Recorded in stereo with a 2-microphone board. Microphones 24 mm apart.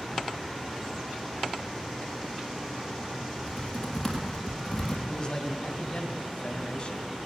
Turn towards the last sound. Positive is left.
turn(degrees=40)  # may be behind; listen again after turning